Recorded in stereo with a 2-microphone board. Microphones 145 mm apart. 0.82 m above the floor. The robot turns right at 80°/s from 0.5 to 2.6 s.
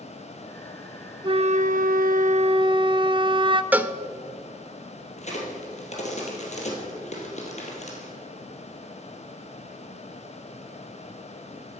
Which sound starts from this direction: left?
A crack, at 5.2 s.